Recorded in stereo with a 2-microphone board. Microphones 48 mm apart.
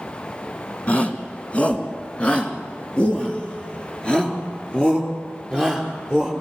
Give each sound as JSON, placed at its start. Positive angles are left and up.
{"t": 0.9, "sound": "a shout", "side_deg": 30, "distance_m": 2.5}